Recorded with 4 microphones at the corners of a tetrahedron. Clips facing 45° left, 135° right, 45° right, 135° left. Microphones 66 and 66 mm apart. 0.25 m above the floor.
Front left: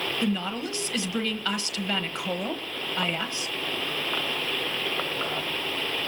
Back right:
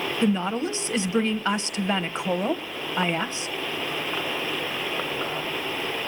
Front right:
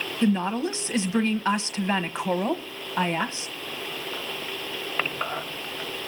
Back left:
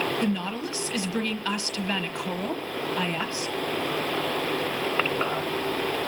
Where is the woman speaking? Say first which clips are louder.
Back right 6 dB, front right 4 dB; 90° right, 1.2 m.